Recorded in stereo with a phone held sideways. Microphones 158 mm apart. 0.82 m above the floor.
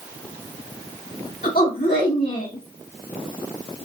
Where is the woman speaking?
80° left, 3 m.